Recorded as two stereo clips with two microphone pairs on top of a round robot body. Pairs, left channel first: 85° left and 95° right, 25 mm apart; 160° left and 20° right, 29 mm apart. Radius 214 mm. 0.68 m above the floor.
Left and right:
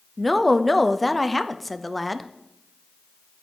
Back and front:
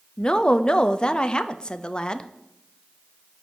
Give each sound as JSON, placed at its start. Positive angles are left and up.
{"t": 0.2, "sound": "a woman speaking", "azimuth_deg": 150, "distance_m": 0.6}